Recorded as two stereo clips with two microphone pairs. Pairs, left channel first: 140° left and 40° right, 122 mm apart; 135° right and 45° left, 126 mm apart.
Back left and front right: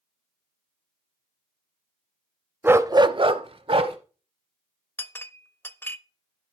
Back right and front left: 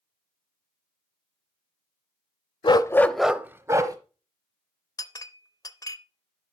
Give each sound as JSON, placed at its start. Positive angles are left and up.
{"t": 2.6, "sound": "a dog barking", "azimuth_deg": -110, "distance_m": 0.5}
{"t": 5.0, "sound": "a clink", "azimuth_deg": -165, "distance_m": 0.5}